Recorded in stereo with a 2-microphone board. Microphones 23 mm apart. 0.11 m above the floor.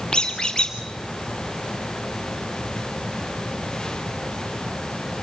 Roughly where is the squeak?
Left.